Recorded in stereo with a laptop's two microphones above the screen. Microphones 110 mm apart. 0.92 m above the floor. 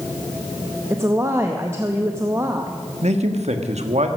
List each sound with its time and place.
0.9 s a woman speaking: 25° right (ahead or behind), 0.7 m
3.0 s a man speaking: 75° right (ahead or behind), 1.3 m